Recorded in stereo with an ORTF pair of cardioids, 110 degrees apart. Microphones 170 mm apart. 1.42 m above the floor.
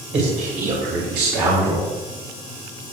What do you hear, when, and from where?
0.1 s a man speaking: 40° right, 2.5 m; by 1.9 s 75° right, 4 m